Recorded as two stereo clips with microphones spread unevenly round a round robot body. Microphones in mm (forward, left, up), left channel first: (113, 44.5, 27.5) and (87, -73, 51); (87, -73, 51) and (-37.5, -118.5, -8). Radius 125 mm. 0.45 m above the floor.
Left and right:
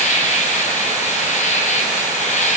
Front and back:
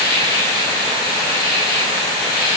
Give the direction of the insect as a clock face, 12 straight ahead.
9 o'clock.